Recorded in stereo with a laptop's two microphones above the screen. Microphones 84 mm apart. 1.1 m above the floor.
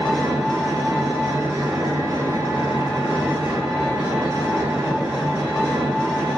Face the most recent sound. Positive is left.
turn(degrees=-5)  # may be behind; listen again after turning